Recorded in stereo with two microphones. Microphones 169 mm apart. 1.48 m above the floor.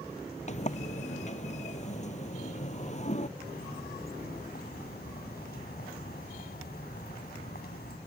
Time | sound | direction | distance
0.5 | a sliding door | 45° left (ahead or behind) | ?
3.4 | a bird | 65° left (ahead or behind) | ?